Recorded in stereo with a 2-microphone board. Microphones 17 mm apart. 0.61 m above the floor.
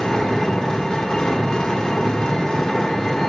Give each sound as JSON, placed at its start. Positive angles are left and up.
{"t": 0.0, "sound": "an engine running", "side_deg": 40, "distance_m": 1.5}